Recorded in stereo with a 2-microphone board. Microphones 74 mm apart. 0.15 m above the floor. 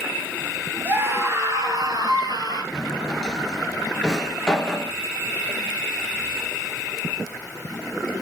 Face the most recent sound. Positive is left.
turn(degrees=5)  # may be behind; listen again after turning